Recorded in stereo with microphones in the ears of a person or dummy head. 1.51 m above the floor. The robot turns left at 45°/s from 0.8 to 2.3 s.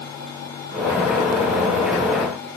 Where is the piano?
No piano in this recording.